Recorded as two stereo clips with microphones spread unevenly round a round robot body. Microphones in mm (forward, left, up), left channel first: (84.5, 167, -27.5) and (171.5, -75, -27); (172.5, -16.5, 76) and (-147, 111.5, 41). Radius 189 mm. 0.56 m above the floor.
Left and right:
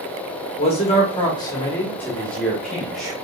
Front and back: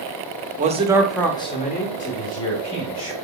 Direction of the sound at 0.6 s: 150° left.